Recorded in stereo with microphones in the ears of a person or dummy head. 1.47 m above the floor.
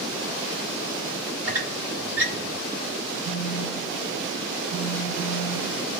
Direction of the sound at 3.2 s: 45° right (ahead or behind).